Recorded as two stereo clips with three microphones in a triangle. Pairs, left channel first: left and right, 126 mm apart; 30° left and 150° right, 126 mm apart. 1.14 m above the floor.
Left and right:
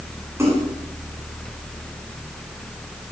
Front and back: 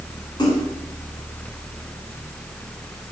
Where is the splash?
25° right, 8.5 m.